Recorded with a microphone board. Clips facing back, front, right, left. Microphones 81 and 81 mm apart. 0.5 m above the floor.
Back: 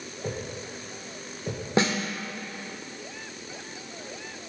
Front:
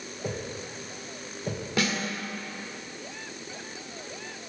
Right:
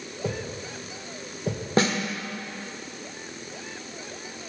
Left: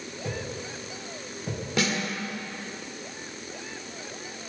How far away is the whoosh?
About 3 m.